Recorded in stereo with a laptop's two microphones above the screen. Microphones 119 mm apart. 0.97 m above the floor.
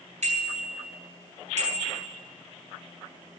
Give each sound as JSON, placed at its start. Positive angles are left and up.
{"t": 0.2, "sound": "a bicycle bell", "side_deg": -75, "distance_m": 7.5}